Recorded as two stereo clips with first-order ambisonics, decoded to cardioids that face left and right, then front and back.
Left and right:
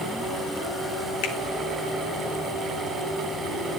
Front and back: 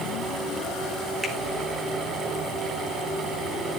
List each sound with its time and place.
1.2 s a finger snap: 100° left, 2.0 m